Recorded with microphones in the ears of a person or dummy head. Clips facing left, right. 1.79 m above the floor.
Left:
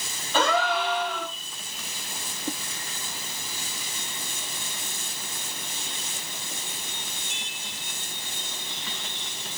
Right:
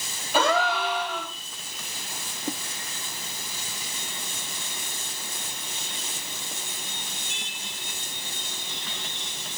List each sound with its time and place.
0.3 s a gasp: 10° right (ahead or behind), 3.5 m